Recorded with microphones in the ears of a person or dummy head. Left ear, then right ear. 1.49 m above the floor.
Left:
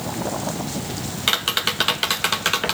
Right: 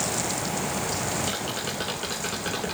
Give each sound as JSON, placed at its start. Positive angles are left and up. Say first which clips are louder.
{"t": 1.3, "sound": "tapping", "louder": "left 9 dB", "side_deg": 20, "distance_m": 0.6}